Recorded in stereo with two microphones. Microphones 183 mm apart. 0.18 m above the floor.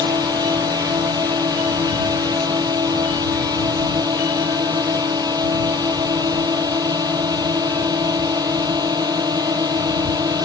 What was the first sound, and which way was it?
A drone, 20° right (ahead or behind).